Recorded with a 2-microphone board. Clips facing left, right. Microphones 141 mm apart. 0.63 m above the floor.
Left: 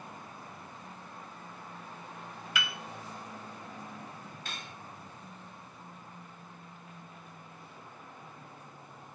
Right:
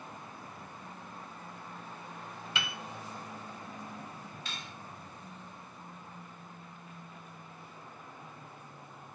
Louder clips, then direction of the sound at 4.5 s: Left 1 dB; 50° left (ahead or behind).